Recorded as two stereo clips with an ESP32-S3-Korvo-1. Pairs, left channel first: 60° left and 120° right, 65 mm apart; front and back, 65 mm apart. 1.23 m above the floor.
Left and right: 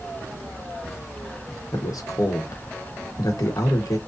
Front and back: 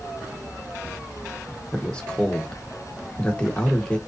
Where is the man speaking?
75° left, 1.2 m.